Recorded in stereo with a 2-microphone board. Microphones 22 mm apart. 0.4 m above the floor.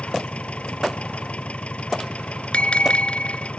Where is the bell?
50° left (ahead or behind).